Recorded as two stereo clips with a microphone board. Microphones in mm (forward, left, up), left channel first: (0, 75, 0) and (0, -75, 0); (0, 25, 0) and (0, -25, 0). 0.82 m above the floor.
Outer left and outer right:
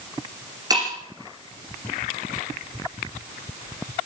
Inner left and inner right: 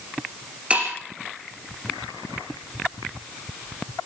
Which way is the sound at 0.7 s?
25° right (ahead or behind).